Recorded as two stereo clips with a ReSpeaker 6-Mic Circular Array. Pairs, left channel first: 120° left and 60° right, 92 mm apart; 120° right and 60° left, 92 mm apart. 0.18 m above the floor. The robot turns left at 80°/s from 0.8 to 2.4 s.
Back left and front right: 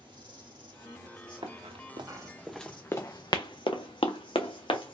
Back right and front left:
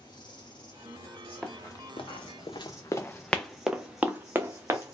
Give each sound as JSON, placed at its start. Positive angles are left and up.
{"t": 0.0, "sound": "an insect", "azimuth_deg": -85, "distance_m": 2.5}
{"t": 1.4, "sound": "running footsteps", "azimuth_deg": -35, "distance_m": 1.4}